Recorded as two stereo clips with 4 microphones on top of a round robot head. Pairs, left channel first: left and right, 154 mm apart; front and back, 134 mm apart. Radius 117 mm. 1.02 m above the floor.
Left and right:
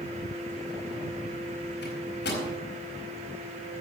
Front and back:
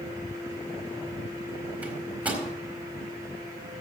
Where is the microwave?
105° left, 4.5 m.